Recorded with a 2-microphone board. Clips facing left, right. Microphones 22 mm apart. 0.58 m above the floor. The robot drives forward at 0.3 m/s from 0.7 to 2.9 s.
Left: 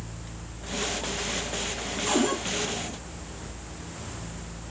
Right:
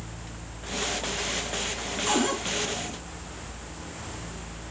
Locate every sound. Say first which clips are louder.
2.1 s a cupboard door: even; 10° right (ahead or behind), 3.5 m